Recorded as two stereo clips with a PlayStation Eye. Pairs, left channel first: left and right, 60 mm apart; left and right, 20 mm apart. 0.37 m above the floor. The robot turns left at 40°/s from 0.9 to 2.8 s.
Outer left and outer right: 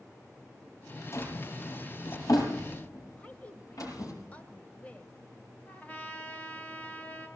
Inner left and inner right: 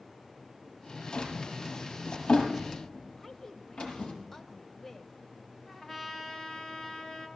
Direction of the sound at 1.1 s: 45° left (ahead or behind).